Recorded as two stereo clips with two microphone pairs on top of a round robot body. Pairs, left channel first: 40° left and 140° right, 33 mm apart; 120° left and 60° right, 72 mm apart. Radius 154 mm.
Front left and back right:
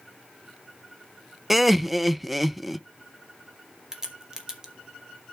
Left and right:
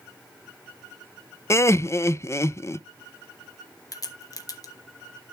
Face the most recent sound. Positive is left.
turn(degrees=150)